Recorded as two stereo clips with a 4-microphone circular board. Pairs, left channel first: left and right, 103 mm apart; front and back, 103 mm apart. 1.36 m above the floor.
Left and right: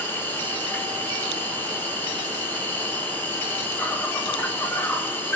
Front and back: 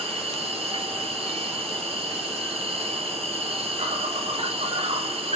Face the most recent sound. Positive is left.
turn(degrees=160)